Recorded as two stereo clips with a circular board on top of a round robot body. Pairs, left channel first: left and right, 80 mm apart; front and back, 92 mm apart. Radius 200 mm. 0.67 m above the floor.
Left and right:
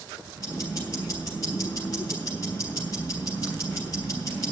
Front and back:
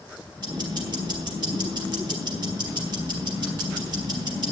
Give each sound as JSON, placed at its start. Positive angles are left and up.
{"t": 0.4, "sound": "ticking", "azimuth_deg": 140, "distance_m": 3.5}